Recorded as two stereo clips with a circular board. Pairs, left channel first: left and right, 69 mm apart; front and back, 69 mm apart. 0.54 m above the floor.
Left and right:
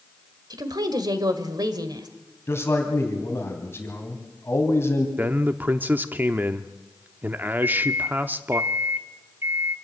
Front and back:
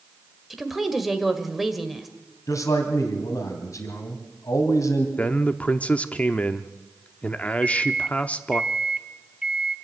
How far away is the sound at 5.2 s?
About 0.8 m.